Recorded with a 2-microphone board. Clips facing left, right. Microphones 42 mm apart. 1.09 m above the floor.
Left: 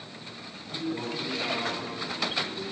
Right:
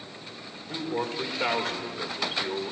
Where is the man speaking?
55° right (ahead or behind), 1.5 m.